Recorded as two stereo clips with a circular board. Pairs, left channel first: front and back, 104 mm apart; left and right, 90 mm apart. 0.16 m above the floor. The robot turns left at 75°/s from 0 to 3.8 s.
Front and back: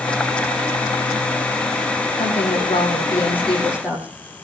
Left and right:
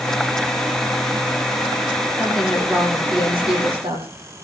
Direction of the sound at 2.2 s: 15° left.